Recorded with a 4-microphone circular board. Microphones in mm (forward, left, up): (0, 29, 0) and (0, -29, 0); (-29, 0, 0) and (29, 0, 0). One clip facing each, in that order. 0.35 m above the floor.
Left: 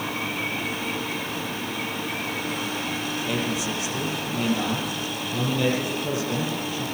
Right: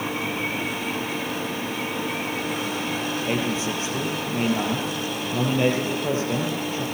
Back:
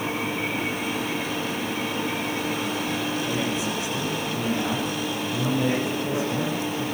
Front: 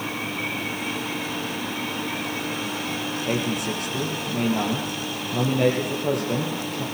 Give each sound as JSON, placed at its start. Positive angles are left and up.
{"t": 3.3, "sound": "a man speaking", "azimuth_deg": -30, "distance_m": 9.5}